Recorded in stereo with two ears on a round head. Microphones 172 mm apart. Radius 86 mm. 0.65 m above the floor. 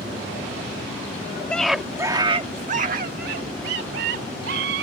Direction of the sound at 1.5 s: 5° left (ahead or behind).